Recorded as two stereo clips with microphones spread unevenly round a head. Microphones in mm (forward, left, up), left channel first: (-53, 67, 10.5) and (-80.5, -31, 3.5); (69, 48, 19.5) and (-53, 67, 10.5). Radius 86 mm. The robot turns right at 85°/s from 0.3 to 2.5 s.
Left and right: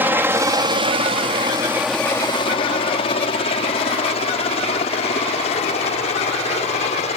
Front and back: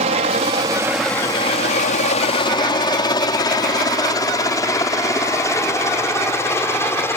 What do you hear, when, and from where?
0.0 s a helicopter: 170° right; by 7.2 s 60° left